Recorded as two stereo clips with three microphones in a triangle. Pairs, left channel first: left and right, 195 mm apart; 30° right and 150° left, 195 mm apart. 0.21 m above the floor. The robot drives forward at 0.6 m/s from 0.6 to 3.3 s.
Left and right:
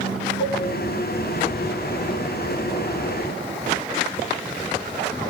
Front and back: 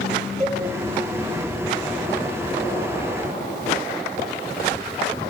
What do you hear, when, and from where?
0.4 s a cowbell: 100° left, 1.1 m